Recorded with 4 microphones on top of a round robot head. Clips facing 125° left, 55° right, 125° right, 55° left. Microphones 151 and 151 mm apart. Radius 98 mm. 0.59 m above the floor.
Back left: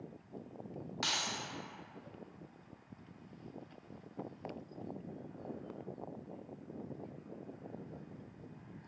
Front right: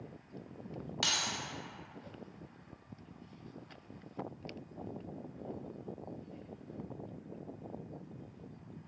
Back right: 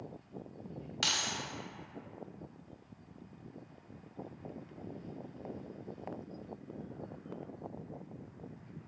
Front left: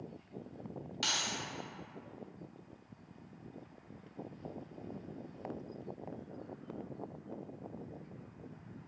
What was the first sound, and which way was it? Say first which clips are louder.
Keys jangling: even, back right 1 dB; 115° right.